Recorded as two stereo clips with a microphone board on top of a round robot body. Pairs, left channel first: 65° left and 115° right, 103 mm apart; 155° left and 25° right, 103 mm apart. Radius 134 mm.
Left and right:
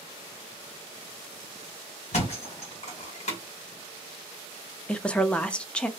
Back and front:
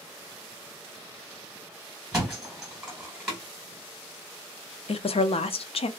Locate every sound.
2.1 s a thud: 65° left, 1.5 m
4.9 s a woman speaking: 145° left, 0.5 m